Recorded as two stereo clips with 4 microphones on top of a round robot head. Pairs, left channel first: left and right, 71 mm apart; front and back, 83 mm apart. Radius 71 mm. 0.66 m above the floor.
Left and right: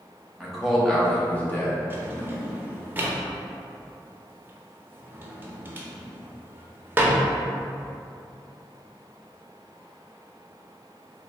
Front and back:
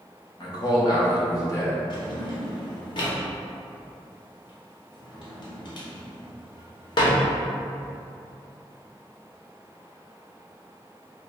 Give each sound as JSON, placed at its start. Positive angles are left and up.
{"t": 0.4, "sound": "a man speaking", "azimuth_deg": -5, "distance_m": 1.3}
{"t": 1.9, "sound": "a drawer", "azimuth_deg": -30, "distance_m": 0.7}